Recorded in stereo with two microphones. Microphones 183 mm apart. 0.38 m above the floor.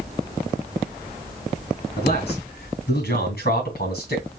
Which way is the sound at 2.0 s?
60° left (ahead or behind).